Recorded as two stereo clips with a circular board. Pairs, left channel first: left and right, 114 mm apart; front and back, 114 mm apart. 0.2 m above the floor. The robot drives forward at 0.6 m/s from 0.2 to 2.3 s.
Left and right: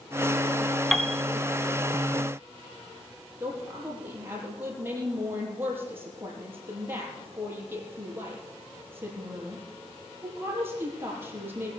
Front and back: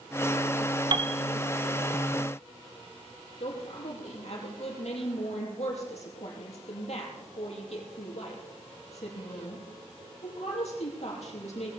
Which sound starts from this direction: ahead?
A woman speaking, at 3.4 s.